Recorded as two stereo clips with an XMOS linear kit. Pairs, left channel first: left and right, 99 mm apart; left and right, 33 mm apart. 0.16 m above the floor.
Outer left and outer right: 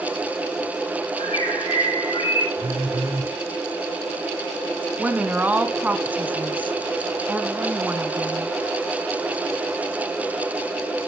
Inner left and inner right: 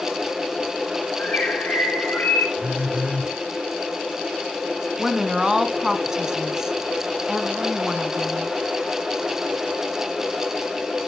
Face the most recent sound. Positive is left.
turn(degrees=-15)  # may be behind; listen again after turning